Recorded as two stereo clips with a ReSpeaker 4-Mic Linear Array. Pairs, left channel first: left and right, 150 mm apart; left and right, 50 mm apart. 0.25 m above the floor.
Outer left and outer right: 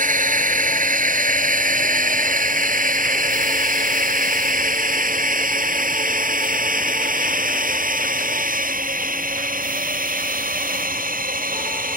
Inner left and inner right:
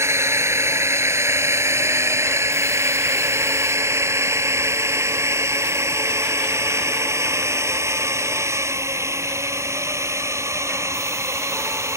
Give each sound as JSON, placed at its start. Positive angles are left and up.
{"t": 0.0, "sound": "a drone", "side_deg": -65}